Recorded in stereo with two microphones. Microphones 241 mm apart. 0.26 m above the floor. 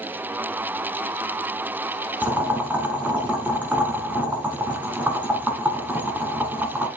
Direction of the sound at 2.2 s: 5° right (ahead or behind).